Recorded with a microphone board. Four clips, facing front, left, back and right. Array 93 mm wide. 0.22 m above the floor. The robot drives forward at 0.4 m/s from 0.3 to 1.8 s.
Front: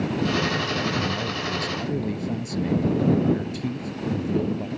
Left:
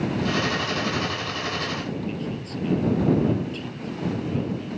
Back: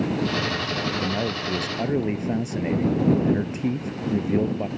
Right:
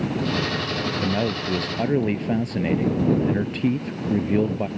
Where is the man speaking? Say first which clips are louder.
Right 4 dB, back 1 dB; 115° right.